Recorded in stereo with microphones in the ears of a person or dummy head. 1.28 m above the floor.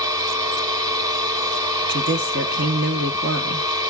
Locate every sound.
0.0 s a machine running: 25° right (ahead or behind), 2 m
1.9 s a woman speaking: 55° right (ahead or behind), 1.1 m